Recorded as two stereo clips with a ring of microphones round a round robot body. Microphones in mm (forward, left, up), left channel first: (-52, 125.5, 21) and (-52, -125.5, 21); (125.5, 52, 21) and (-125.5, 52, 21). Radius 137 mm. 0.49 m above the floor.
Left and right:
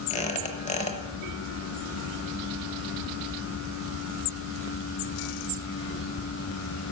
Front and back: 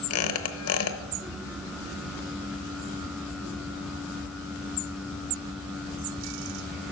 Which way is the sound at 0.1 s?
25° left.